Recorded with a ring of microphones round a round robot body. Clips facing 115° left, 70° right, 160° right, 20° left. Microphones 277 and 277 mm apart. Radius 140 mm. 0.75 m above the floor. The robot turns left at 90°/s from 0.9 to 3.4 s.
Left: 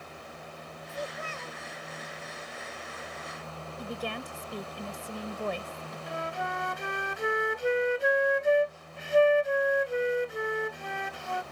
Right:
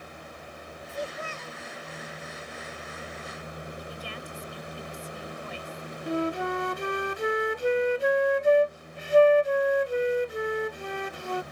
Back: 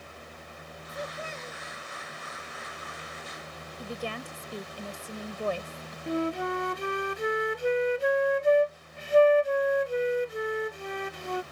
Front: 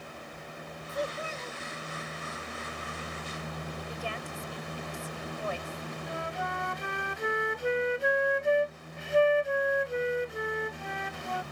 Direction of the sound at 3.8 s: 150° left.